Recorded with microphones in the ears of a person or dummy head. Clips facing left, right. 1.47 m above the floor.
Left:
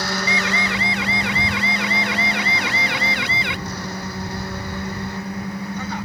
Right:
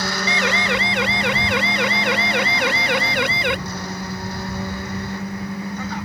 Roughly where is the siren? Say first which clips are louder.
Right 2 dB; right.